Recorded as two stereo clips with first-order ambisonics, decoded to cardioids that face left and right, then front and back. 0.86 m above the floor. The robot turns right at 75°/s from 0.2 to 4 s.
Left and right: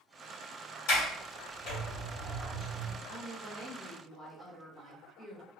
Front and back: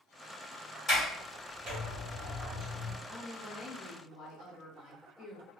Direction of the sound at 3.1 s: 100° right.